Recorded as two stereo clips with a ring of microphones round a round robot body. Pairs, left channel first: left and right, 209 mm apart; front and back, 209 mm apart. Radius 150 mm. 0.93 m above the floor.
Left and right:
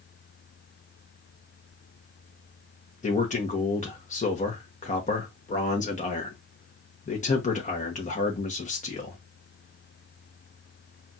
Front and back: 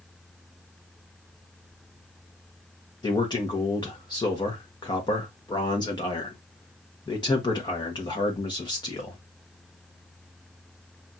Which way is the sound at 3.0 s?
60° left.